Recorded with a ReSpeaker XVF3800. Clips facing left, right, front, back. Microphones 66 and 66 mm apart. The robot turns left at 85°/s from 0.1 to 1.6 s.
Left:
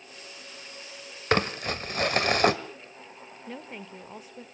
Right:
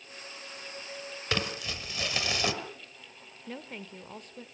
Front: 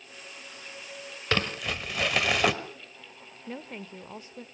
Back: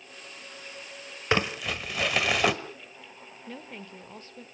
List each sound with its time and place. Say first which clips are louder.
1.3 s crumpling: left 8 dB, back 2 dB; 115° left, 1.8 m; by 2.5 s 90° left, 1.8 m
3.5 s a woman speaking: left 1 dB, front 3 dB; 15° left, 1.5 m